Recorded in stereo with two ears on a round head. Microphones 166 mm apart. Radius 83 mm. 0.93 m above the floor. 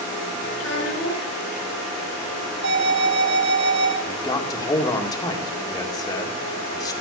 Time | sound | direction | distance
0.6 | a child speaking | 80° left | 8.5 m
2.6 | an alarm | 70° right (ahead or behind) | 5 m
4.0 | a man speaking | 20° left (ahead or behind) | 1.8 m